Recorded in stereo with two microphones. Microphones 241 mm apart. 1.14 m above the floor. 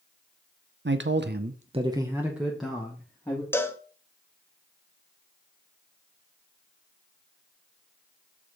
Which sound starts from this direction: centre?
A cowbell, at 3.5 s.